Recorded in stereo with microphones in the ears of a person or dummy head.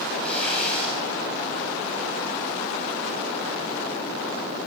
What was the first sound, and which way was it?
Tearing paper, 10° left (ahead or behind).